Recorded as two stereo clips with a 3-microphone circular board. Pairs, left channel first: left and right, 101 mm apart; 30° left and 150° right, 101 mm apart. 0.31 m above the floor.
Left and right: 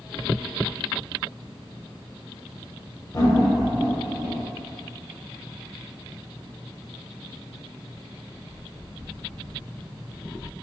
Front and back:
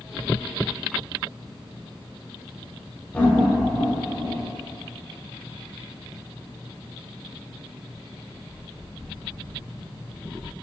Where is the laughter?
90° left, 1.0 m; by 4.4 s 105° right, 1.3 m.